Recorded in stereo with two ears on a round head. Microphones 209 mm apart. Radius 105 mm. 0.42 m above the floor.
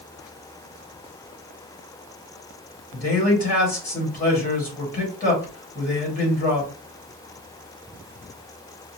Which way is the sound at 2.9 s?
40° left (ahead or behind).